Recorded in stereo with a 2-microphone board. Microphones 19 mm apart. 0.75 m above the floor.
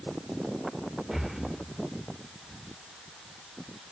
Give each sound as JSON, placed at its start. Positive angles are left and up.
{"t": 1.1, "sound": "breathing", "side_deg": -10, "distance_m": 1.0}